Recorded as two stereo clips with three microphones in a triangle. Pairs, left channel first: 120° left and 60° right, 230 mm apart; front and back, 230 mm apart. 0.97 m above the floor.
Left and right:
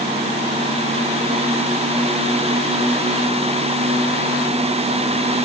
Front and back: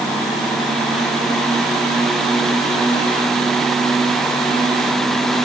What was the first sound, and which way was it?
Only background noise.